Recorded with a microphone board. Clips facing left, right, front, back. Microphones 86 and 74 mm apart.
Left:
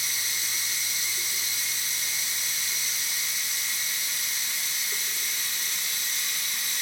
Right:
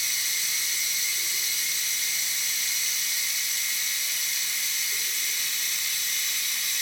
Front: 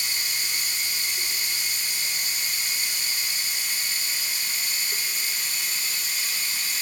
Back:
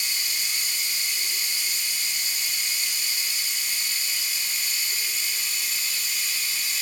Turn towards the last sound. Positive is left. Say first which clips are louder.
# even, front 1 dB
turn(degrees=40)